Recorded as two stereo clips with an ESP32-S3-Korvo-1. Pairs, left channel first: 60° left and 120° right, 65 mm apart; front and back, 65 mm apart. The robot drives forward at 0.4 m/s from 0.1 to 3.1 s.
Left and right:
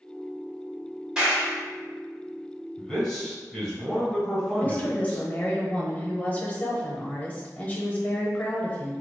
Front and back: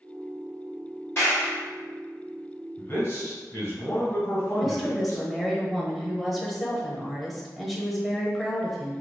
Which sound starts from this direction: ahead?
A man speaking, at 2.8 s.